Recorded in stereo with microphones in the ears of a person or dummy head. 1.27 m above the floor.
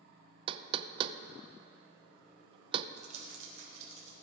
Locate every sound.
0.5 s knocking: 25° right (ahead or behind), 0.5 m
3.0 s crumpling: 35° right (ahead or behind), 3.5 m